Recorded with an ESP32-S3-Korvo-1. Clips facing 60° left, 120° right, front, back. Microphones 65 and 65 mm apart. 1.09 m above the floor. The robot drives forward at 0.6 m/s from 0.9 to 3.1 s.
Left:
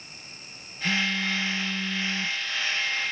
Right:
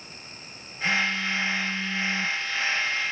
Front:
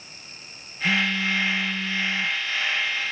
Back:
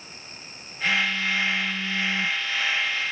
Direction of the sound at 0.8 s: 15° left.